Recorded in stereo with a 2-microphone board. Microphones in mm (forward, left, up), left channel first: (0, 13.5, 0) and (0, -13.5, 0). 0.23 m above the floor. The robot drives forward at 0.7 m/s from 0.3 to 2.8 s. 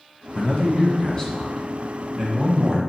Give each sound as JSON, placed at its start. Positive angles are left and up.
{"t": 0.3, "sound": "a man speaking", "side_deg": 40, "distance_m": 1.3}